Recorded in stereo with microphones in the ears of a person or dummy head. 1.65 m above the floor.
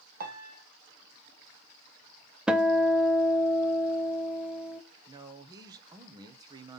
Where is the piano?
50° right (ahead or behind), 1.3 m.